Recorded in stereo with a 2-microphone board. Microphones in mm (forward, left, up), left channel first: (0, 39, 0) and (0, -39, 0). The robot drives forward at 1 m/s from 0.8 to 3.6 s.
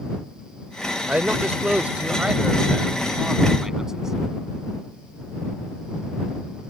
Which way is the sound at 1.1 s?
20° right (ahead or behind).